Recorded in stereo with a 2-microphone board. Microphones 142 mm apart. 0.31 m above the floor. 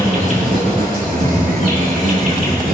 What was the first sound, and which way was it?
An insect, 80° right.